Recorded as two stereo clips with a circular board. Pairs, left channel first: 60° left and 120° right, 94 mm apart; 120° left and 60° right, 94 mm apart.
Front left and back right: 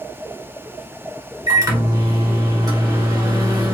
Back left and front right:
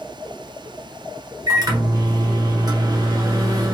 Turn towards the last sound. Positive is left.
turn(degrees=-90)